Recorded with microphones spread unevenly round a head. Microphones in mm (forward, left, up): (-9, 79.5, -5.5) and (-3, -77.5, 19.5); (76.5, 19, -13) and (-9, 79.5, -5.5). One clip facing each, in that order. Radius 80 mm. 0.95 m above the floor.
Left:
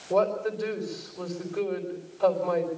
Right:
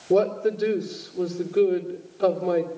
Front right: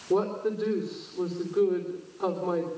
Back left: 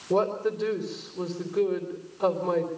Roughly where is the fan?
No fan in this recording.